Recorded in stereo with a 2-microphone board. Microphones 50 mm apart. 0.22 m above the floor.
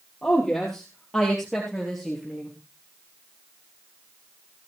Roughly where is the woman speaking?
Centre.